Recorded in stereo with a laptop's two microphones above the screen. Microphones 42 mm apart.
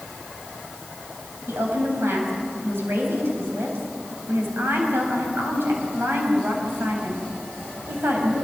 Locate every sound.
1.5 s a woman speaking: 70° right (ahead or behind), 5 m